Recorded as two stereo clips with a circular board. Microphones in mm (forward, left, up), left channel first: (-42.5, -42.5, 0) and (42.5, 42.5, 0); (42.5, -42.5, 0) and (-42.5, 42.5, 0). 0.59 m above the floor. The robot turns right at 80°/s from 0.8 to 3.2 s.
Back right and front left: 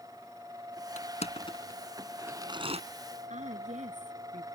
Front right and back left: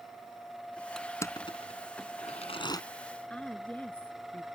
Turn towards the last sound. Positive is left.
turn(degrees=35)